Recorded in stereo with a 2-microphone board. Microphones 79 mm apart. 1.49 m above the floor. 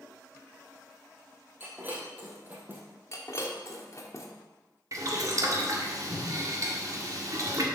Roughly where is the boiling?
Right.